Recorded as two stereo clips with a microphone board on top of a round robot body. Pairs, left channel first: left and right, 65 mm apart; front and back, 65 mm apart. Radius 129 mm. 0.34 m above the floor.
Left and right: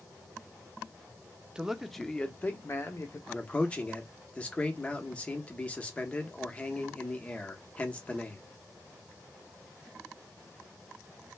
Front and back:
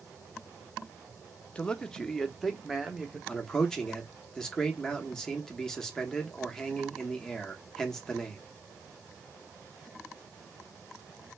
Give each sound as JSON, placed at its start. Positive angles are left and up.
{"t": 1.6, "sound": "a man speaking", "azimuth_deg": -40, "distance_m": 0.9}
{"t": 3.3, "sound": "a man speaking", "azimuth_deg": 65, "distance_m": 1.2}